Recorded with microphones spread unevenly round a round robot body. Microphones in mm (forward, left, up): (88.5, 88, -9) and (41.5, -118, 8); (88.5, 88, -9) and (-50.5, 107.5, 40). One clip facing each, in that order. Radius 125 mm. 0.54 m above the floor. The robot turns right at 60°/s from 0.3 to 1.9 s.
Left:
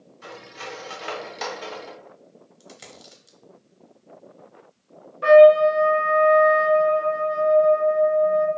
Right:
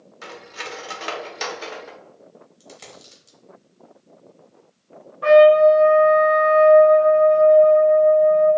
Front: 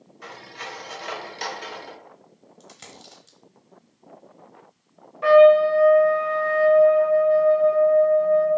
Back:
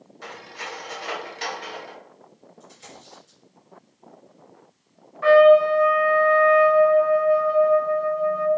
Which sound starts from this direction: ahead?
A dropped coin, at 2.6 s.